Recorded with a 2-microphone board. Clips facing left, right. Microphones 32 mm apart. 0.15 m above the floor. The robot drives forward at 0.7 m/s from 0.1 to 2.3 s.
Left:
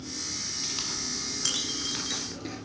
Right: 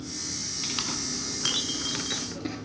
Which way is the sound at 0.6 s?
25° right (ahead or behind).